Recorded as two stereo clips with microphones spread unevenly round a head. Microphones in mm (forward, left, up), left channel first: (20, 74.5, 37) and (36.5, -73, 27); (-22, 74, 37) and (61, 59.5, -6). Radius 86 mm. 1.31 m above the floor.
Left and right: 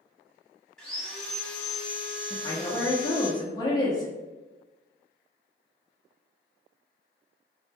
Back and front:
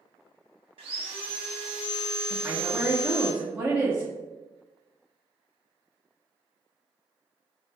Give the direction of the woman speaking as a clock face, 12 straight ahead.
11 o'clock.